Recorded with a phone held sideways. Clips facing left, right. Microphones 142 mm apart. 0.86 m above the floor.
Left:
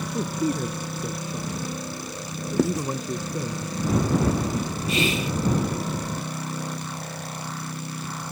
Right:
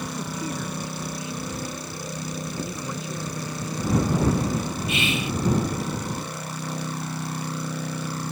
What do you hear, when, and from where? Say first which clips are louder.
0.1 s a man speaking: left 5 dB; 45° left (ahead or behind)
2.6 s writing: left 9 dB; 85° left
4.9 s whispering: left 4 dB; 35° left (ahead or behind)